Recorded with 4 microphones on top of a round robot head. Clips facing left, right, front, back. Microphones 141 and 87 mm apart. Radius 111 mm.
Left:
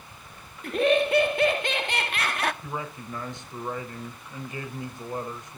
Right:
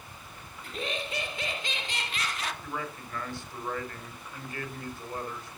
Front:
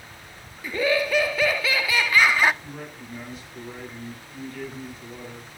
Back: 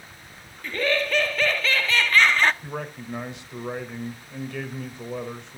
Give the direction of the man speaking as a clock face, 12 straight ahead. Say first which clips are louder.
Left 2 dB, back 5 dB; 7 o'clock.